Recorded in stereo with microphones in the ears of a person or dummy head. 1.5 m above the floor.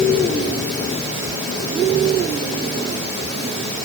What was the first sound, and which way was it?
Only background noise.